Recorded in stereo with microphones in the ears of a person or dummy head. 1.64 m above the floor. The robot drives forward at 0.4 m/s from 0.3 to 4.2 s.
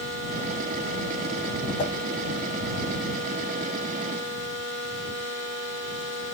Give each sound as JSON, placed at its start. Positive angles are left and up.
{"t": 1.8, "sound": "a whoosh", "side_deg": 55, "distance_m": 1.1}